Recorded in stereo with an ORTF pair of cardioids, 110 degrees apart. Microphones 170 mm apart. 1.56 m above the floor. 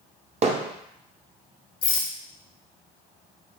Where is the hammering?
40° right, 0.7 m.